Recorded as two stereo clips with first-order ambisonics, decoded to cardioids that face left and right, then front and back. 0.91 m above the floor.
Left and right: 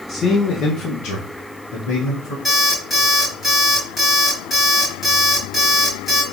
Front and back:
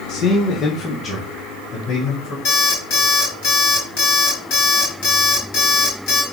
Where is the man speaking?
25° left, 0.7 m; by 2.4 s 70° left, 2.5 m.